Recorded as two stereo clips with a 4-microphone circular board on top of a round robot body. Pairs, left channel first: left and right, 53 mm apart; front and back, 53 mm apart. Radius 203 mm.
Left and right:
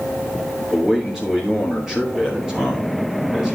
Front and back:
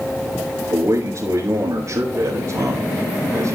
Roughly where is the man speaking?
Behind.